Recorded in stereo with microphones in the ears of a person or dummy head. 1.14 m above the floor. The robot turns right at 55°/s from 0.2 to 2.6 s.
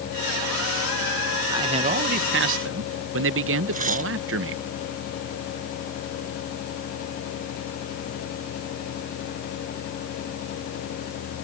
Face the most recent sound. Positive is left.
turn(degrees=-40)  # may be behind; listen again after turning